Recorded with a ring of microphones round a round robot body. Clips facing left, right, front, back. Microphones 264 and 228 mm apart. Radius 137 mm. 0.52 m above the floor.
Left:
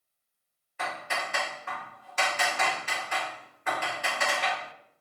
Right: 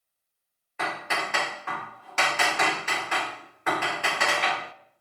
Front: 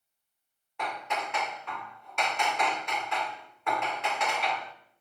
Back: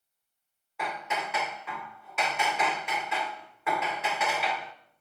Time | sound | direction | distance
0.8 | hammering | 95° right | 1.0 m